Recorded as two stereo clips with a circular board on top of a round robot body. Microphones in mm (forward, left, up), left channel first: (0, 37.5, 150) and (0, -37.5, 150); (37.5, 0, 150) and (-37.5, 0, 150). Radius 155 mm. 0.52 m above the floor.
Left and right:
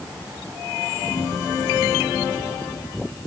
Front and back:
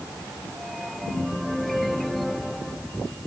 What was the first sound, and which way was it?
Only background noise.